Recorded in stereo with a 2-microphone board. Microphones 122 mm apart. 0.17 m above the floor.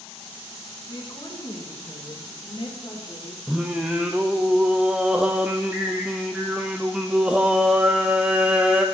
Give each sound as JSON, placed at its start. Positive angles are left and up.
{"t": 0.9, "sound": "a woman speaking", "side_deg": 40, "distance_m": 2.5}
{"t": 3.5, "sound": "singing", "side_deg": -10, "distance_m": 1.0}